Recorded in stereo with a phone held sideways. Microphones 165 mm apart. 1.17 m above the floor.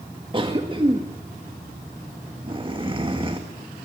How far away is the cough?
About 1.9 m.